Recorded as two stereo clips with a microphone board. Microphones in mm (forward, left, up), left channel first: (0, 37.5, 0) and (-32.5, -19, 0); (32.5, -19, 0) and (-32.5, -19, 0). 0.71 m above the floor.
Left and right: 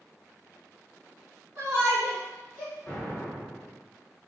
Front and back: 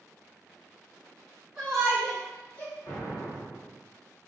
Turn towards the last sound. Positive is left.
turn(degrees=5)